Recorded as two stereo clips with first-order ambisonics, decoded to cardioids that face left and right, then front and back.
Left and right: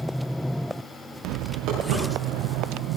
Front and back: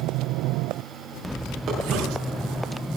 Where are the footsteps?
125° right, 7.5 m; by 2.8 s 120° right, 8 m.